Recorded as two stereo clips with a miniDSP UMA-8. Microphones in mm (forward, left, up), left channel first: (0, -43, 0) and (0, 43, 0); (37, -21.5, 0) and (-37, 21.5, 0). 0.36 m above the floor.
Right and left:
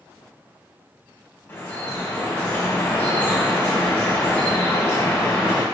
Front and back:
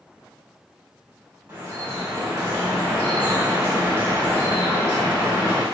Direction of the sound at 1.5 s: 155° right.